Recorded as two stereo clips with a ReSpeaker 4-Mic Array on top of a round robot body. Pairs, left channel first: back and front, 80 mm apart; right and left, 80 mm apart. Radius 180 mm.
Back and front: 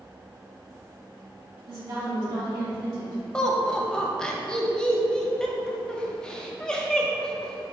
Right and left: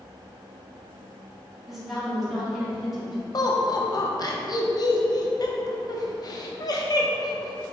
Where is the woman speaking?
5° left, 1.8 m.